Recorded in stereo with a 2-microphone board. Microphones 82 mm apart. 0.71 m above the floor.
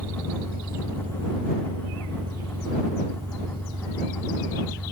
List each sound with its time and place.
0.0 s an engine running: 75° right (ahead or behind)